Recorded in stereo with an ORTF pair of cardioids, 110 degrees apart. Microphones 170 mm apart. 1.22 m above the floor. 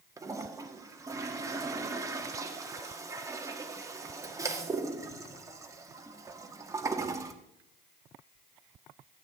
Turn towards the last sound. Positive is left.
turn(degrees=-20)